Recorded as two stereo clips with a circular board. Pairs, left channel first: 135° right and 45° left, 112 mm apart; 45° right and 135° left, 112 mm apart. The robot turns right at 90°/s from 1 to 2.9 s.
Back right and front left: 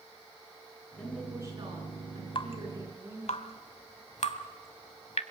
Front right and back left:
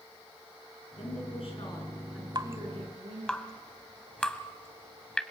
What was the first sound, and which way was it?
A woman speaking, 60° right.